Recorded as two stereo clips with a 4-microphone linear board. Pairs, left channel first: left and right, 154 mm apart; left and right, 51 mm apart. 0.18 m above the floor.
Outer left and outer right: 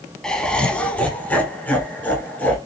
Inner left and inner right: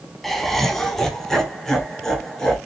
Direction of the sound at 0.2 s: 5° left (ahead or behind).